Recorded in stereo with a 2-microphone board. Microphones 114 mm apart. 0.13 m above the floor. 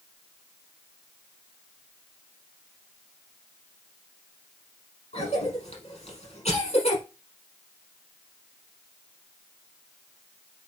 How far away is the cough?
About 5 m.